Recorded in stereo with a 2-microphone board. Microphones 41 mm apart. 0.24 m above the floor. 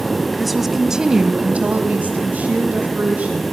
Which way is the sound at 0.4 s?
Centre (ahead or behind).